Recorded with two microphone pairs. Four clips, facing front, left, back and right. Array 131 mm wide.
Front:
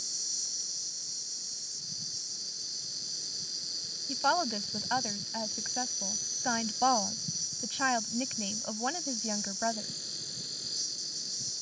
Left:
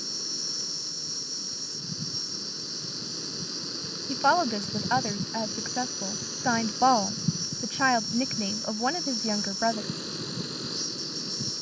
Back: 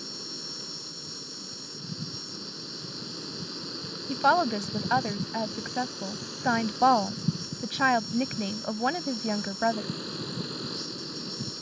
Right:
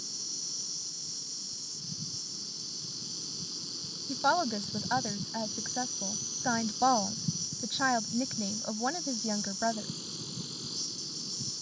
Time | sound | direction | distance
0.0 | an insect | 130° left | ?
4.1 | a woman speaking | 130° left | ?